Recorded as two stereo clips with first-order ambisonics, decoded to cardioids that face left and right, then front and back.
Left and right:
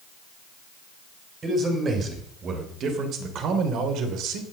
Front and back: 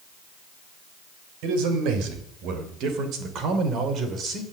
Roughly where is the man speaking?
Behind.